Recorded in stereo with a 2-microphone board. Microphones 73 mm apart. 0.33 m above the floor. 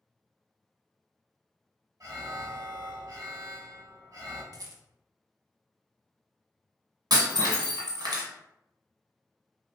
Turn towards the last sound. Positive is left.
turn(degrees=-75)  # may be behind; listen again after turning